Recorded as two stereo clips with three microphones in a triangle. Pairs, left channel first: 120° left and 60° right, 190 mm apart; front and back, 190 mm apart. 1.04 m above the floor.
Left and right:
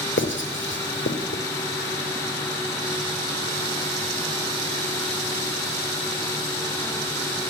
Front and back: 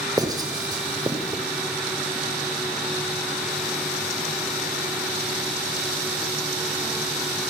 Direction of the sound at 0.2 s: 110° left.